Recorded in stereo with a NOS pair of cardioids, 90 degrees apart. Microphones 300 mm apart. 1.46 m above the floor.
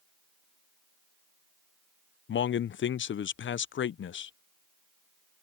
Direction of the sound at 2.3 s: 40° left.